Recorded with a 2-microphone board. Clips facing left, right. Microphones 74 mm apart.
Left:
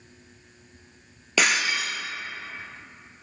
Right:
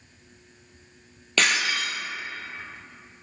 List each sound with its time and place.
1.4 s breaking glass: 10° left (ahead or behind), 3 m